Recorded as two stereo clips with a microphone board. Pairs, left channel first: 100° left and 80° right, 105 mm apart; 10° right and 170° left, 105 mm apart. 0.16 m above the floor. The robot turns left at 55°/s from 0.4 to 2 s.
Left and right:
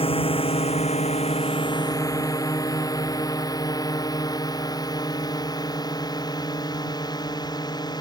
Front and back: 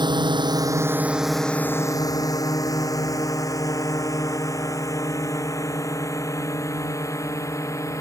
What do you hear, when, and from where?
0.0 s a drone: 125° left; by 8.0 s 50° left